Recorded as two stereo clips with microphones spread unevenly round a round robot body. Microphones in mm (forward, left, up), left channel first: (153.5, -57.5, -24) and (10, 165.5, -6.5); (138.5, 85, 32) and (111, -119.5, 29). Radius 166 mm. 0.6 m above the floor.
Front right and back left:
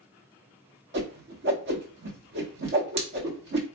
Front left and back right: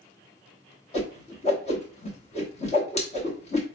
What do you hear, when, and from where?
0.9 s a whoosh: 120° left, 1.0 m